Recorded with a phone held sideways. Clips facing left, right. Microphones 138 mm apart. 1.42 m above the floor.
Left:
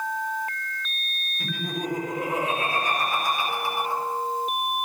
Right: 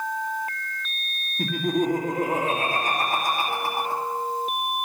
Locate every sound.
1.4 s laughter: 45° right (ahead or behind), 3 m